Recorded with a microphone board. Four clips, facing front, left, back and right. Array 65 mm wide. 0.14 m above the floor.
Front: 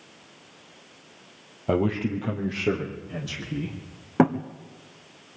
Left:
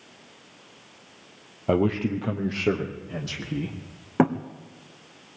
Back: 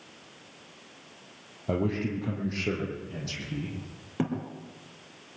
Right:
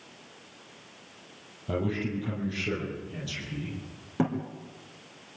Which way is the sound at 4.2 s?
35° left.